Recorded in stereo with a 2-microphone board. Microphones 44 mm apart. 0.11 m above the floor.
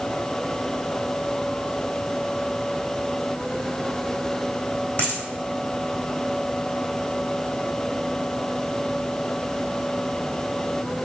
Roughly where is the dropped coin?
Left.